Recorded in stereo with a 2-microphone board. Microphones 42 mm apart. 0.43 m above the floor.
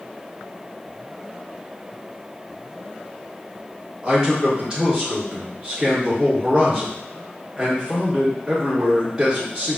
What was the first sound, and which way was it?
A man speaking, 15° right (ahead or behind).